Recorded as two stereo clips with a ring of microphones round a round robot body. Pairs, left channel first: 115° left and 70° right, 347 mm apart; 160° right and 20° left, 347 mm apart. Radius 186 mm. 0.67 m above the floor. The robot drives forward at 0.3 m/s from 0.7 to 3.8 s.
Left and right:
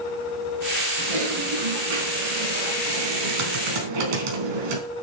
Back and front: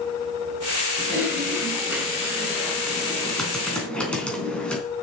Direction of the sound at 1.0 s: 60° right.